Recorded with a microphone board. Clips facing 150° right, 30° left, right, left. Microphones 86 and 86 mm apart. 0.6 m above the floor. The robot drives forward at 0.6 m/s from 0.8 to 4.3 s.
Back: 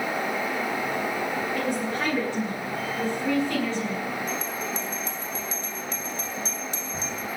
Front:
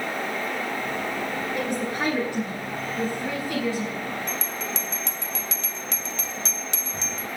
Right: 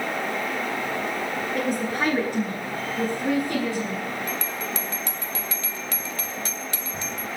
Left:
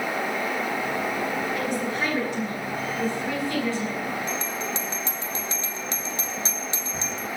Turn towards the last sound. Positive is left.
turn(degrees=25)